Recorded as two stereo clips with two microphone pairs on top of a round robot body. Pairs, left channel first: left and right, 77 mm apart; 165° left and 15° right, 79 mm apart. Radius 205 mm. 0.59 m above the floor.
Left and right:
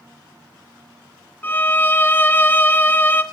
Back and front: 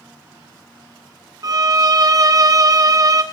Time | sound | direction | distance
1.4 | a violin | 30° left | 0.8 m